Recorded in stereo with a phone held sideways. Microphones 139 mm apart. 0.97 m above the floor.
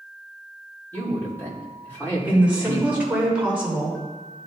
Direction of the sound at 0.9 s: 10° left (ahead or behind).